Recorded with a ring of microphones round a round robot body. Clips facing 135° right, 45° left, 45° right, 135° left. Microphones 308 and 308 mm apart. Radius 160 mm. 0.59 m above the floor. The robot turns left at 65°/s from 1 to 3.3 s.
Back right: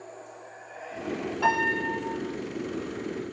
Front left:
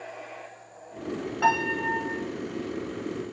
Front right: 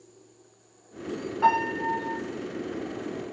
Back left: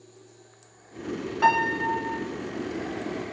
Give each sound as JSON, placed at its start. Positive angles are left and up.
{"t": 1.4, "sound": "a piano", "azimuth_deg": 100, "distance_m": 3.0}